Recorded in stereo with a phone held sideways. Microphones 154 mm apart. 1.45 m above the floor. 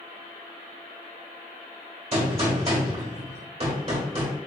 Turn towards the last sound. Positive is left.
turn(degrees=-40)  # may be behind; listen again after turning